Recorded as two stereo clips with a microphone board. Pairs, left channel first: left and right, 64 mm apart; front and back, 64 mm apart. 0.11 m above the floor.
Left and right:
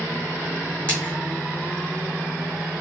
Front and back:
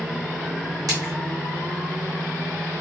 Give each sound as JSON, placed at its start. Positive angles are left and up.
{"t": 0.9, "sound": "a splash", "azimuth_deg": 160, "distance_m": 2.0}